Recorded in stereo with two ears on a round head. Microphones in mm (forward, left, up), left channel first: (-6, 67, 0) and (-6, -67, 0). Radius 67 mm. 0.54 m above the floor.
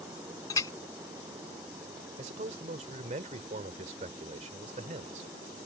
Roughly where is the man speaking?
Right.